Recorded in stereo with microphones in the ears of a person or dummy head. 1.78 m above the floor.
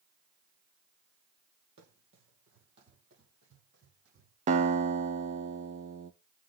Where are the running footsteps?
60° right (ahead or behind), 3.5 m; by 4.3 s 70° right (ahead or behind), 4.5 m.